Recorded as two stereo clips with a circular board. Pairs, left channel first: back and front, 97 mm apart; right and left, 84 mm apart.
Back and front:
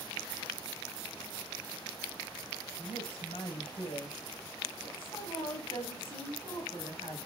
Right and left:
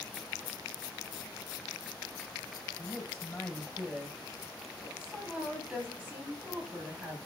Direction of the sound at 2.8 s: 165° right.